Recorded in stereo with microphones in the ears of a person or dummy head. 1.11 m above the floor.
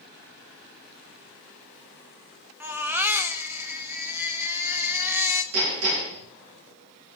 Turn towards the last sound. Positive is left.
turn(degrees=-80)